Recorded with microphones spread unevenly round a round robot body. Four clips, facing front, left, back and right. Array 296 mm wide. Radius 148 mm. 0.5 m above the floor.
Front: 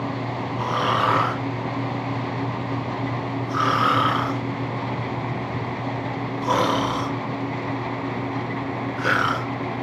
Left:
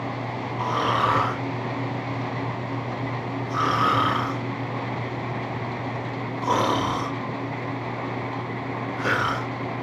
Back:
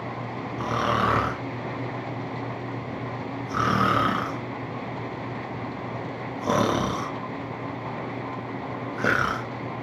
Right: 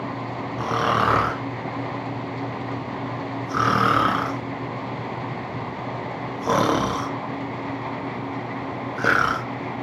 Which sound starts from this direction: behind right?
Snoring, at 0.6 s.